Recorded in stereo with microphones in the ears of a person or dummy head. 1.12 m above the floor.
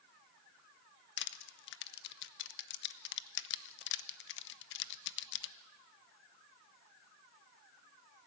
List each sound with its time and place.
1.2 s crushing: 60° left (ahead or behind), 0.9 m